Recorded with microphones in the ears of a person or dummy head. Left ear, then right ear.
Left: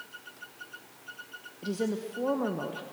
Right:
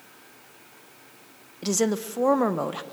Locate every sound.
1.6 s a woman speaking: 65° right (ahead or behind), 0.9 m